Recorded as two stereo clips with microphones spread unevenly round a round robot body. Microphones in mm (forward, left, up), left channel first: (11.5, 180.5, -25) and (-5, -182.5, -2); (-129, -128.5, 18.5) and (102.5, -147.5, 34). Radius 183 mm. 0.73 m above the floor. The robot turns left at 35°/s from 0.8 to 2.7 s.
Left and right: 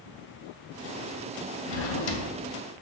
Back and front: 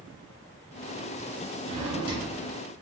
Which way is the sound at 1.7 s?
105° left.